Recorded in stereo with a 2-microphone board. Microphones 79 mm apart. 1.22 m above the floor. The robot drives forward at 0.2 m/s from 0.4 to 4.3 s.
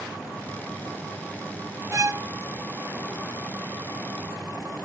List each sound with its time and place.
1.9 s a violin: 45° right (ahead or behind), 0.7 m